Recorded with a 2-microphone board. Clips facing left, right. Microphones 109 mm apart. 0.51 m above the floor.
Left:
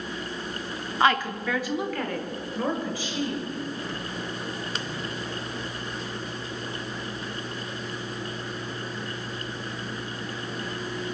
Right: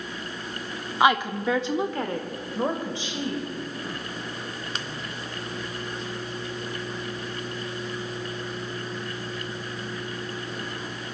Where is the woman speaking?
15° right (ahead or behind), 0.7 m; by 3.5 s 25° right (ahead or behind), 2.5 m.